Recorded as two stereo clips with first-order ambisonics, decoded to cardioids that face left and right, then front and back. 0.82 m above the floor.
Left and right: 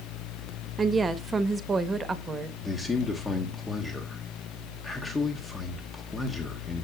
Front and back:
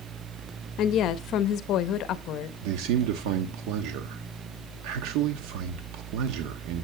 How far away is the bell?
No bell in this recording.